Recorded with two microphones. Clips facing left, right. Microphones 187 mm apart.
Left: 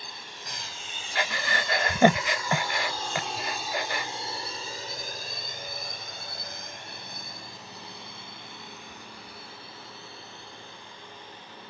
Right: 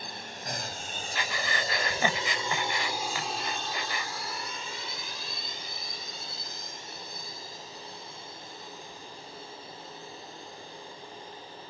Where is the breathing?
60° left (ahead or behind).